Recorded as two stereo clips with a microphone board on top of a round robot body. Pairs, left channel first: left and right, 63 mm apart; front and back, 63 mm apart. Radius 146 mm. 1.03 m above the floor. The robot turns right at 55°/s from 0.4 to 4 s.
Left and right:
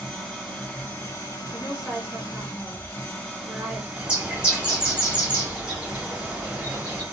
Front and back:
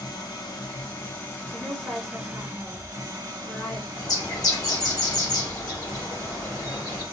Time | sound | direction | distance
0.0 | an engine running | straight ahead | 1.6 m
1.5 | a woman speaking | 170° left | 2.5 m
4.0 | a bird | 20° right | 1.8 m